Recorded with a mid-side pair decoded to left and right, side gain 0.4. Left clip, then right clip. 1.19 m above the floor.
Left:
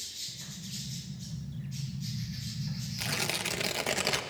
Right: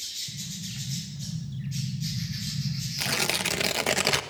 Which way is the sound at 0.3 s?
65° right.